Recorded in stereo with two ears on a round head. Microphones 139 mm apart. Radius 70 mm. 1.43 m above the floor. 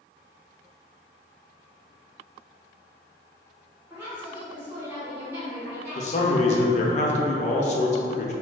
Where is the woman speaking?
15° right (ahead or behind), 1.2 m.